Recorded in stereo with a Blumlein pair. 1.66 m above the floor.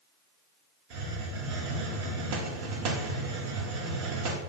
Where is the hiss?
45° right, 0.8 m.